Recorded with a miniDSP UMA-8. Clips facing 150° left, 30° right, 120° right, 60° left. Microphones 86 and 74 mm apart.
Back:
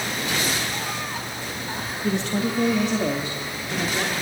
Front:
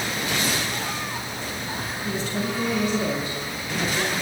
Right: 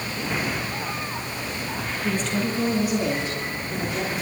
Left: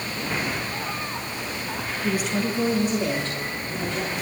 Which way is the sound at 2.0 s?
135° left.